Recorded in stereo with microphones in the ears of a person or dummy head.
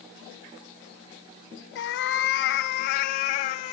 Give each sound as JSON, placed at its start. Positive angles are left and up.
{"t": 1.8, "sound": "a cat meowing", "side_deg": 65, "distance_m": 2.0}